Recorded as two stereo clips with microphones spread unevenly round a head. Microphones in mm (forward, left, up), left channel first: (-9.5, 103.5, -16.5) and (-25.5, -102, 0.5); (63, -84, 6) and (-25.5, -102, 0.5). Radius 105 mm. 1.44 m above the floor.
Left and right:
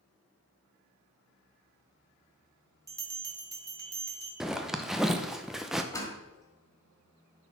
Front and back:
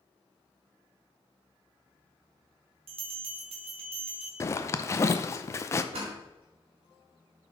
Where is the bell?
170° right, 1.6 m.